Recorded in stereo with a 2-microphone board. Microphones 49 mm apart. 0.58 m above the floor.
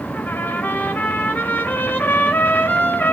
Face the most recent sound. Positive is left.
turn(degrees=40)  # may be behind; listen again after turning